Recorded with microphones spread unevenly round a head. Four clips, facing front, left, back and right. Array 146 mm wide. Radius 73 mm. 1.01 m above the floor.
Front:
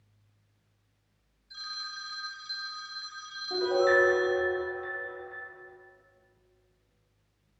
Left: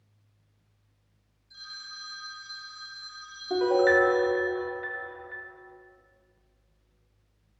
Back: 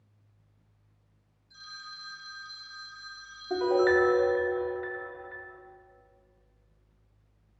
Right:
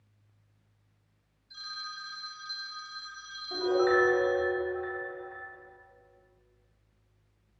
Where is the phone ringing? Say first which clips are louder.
Right 4 dB, front 4 dB; 15° right, 2.5 m.